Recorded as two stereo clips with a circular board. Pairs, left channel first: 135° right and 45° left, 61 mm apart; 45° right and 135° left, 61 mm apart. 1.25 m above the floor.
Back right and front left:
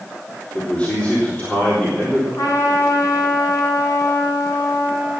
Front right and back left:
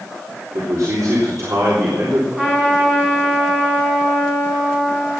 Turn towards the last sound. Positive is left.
turn(degrees=-150)